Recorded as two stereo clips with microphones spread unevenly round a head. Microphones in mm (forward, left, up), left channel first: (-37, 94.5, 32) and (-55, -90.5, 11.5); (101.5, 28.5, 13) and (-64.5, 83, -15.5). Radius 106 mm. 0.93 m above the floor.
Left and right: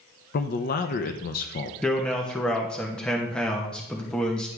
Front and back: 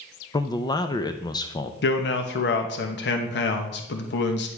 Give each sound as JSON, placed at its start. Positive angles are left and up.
{"t": 0.3, "sound": "a man speaking", "azimuth_deg": 55, "distance_m": 0.5}
{"t": 1.8, "sound": "a man speaking", "azimuth_deg": -5, "distance_m": 1.0}